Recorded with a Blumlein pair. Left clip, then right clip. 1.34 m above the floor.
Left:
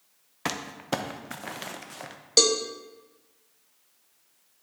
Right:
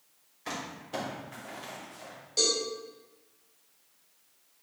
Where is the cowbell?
35° left, 1.0 m.